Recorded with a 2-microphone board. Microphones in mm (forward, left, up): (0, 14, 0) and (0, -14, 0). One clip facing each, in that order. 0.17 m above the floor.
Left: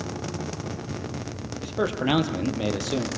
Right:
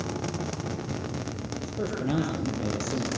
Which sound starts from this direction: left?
A man speaking, at 1.6 s.